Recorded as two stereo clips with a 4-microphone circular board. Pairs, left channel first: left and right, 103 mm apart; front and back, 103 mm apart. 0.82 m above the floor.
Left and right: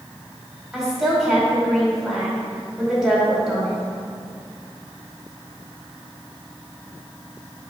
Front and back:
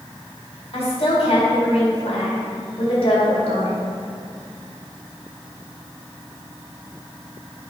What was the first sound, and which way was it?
A woman speaking, 5° right.